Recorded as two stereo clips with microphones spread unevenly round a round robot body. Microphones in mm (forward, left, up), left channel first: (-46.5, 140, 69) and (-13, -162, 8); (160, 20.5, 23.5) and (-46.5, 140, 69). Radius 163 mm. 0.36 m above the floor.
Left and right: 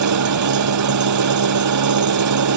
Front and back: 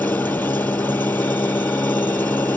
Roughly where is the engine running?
Behind right.